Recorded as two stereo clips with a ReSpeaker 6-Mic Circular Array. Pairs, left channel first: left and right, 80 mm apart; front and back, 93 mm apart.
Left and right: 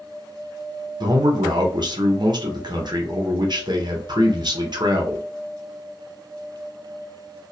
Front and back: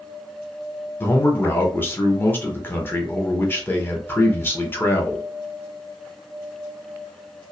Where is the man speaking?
65° right, 0.7 m.